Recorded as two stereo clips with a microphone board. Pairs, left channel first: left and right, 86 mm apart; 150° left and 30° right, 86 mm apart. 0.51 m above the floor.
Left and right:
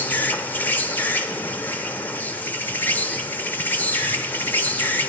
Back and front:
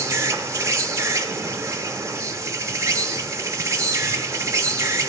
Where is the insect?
20° left, 0.8 m.